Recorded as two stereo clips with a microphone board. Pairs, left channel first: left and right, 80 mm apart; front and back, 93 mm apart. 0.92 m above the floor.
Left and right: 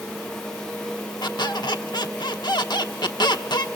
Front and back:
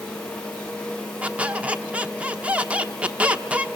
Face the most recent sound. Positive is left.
turn(degrees=105)